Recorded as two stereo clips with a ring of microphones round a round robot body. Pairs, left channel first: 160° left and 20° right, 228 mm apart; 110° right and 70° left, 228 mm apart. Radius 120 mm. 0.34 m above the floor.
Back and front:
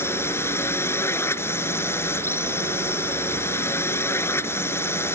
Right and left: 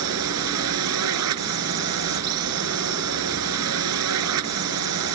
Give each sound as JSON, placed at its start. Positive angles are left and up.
{"t": 0.0, "sound": "a drone", "azimuth_deg": 75}